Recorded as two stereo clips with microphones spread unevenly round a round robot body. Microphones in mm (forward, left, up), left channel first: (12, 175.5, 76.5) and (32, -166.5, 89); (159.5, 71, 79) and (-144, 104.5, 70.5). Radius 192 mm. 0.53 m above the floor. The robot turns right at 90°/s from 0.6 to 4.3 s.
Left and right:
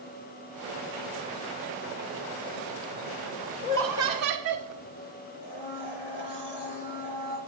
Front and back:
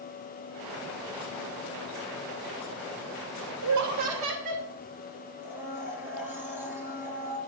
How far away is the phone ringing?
No phone ringing in this recording.